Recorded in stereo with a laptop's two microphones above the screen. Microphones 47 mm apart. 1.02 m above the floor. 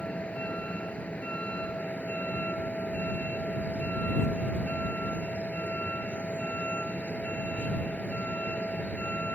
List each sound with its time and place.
0.0 s a vehicle: 25° left (ahead or behind)